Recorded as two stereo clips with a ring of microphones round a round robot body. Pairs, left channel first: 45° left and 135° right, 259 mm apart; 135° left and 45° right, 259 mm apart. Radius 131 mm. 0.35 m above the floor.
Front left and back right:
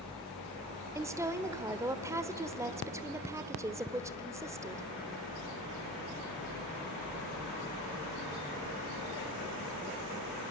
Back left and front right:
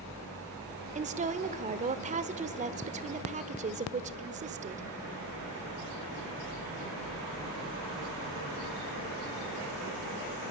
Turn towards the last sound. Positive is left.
turn(degrees=-65)